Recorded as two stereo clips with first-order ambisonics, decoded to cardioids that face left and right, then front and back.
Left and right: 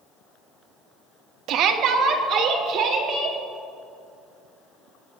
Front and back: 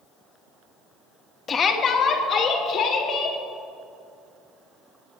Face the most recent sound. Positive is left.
turn(degrees=-50)